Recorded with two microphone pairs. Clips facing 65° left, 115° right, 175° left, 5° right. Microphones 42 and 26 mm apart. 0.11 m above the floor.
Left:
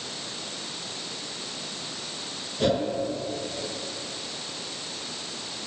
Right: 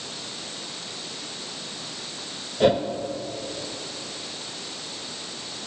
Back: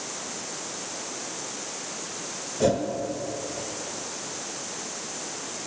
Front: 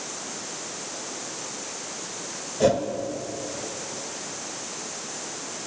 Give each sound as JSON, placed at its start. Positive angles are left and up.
{"t": 2.6, "sound": "a whoosh", "azimuth_deg": -75, "distance_m": 0.7}